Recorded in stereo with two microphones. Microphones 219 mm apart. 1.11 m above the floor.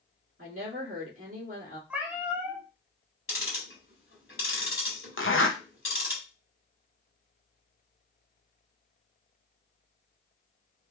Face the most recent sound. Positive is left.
turn(degrees=65)  # may be behind; listen again after turning